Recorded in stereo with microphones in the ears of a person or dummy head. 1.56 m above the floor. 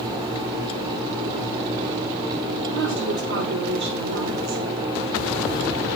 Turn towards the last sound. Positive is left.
turn(degrees=-75)  # may be behind; listen again after turning